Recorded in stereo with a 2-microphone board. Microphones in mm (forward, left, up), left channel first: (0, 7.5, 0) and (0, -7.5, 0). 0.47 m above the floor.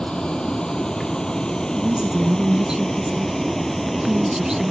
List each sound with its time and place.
0.0 s a vehicle: 65° left (ahead or behind); by 4.7 s 15° left (ahead or behind)
1.8 s a woman speaking: 40° right (ahead or behind)